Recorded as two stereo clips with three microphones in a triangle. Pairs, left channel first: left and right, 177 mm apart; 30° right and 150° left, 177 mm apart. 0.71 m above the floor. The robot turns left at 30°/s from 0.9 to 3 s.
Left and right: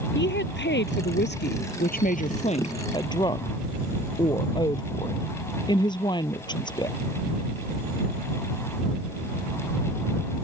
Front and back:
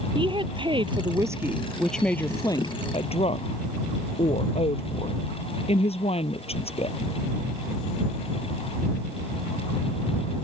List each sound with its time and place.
0.1 s a woman speaking: 90° left; by 7.0 s 25° left